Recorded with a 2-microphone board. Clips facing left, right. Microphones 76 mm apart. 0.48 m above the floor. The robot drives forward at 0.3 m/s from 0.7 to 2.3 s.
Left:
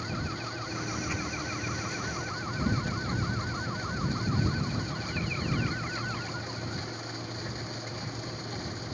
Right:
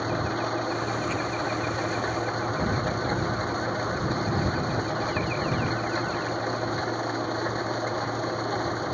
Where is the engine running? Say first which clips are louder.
Right 9 dB; 55° right (ahead or behind).